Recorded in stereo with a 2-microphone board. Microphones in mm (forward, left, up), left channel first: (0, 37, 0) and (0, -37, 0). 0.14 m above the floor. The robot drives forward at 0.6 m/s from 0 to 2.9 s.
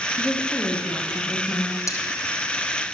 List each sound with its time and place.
0.2 s a woman speaking: 10° left (ahead or behind), 7 m
1.9 s cutlery clinking: 45° left (ahead or behind), 5 m